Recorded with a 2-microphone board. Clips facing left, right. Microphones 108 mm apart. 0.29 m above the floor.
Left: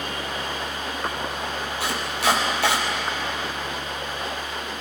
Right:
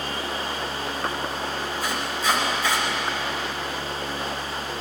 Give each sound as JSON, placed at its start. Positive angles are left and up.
{"t": 1.8, "sound": "chopping", "side_deg": 80, "distance_m": 4.0}